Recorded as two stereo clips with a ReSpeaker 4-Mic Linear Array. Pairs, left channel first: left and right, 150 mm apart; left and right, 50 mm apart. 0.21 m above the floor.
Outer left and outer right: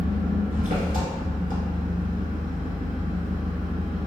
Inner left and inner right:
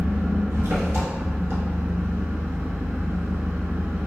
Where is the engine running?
65° right (ahead or behind), 0.9 m.